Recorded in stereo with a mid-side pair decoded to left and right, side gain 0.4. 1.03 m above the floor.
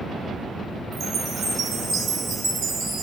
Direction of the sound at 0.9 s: 60° right.